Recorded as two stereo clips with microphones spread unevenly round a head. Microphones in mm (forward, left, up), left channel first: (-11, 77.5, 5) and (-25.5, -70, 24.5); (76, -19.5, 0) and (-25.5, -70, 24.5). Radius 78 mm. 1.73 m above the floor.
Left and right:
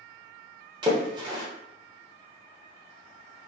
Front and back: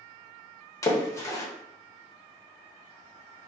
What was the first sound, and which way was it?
A splash, 40° right.